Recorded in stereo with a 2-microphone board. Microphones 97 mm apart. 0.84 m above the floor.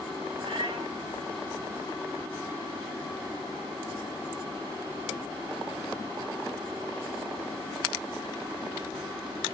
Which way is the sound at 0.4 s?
65° right (ahead or behind).